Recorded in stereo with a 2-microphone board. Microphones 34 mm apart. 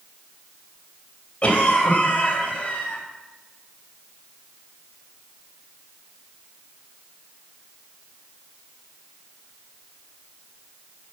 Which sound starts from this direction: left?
A cough, at 1.4 s.